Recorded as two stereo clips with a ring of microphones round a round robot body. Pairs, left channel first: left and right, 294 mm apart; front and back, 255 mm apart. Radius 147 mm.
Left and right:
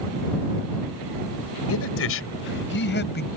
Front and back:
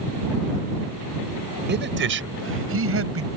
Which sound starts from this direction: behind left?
A man speaking, at 1.7 s.